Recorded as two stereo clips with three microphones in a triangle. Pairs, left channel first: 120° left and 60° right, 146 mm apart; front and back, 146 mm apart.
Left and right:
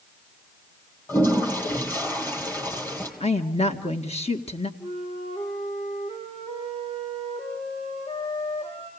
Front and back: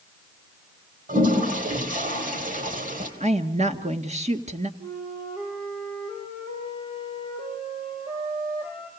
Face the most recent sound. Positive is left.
turn(degrees=160)